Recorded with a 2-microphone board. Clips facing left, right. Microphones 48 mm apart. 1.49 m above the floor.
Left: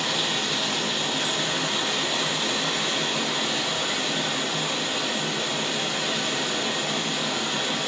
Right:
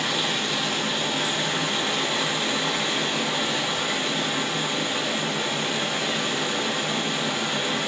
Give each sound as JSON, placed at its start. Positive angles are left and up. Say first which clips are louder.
{"t": 0.0, "sound": "running water", "louder": "right 1 dB", "side_deg": -20, "distance_m": 0.8}